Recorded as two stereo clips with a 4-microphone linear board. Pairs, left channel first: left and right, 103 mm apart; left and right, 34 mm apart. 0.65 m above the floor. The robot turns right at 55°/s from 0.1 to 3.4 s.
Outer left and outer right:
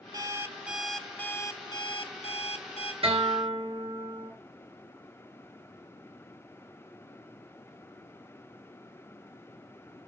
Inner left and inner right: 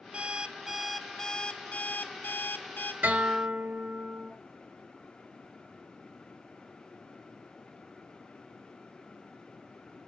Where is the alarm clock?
40° right, 0.7 m; by 2.9 s 115° left, 0.7 m.